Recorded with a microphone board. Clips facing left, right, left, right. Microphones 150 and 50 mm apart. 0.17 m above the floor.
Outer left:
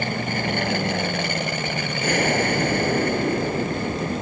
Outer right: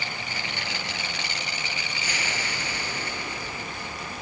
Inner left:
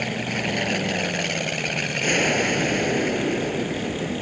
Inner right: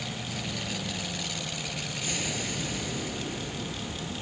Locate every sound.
0.0 s an aircraft: 60° left (ahead or behind)